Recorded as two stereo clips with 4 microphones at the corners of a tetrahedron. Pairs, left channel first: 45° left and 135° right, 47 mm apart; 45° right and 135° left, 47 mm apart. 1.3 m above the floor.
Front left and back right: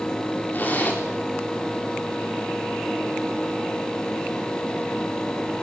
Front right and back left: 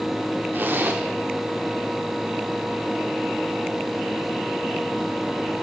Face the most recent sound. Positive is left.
turn(degrees=95)